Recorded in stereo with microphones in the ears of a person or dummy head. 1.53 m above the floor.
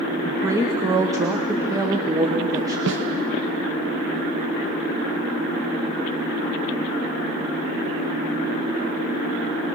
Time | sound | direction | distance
0.2 | a woman speaking | 15° right (ahead or behind) | 1.0 m
2.9 | a snare drum | 60° right (ahead or behind) | 1.0 m